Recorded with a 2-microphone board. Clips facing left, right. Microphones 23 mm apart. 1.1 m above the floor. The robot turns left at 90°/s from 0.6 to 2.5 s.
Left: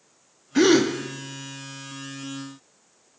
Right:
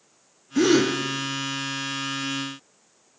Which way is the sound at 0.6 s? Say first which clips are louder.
Left 1 dB; 30° left (ahead or behind).